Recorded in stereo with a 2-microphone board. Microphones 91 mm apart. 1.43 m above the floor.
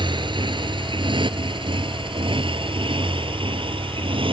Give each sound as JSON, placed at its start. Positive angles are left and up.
{"t": 0.0, "sound": "a motorcycle", "side_deg": -60}